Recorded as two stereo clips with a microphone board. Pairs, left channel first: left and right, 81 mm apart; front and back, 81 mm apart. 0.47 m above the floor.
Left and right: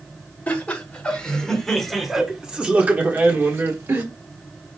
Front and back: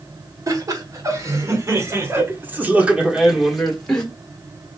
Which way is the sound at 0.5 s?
155° left.